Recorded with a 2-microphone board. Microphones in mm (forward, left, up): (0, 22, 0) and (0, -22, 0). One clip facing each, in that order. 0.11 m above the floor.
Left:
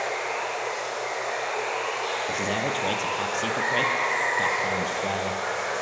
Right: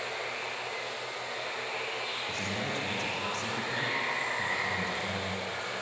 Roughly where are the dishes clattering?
No dishes clattering in this recording.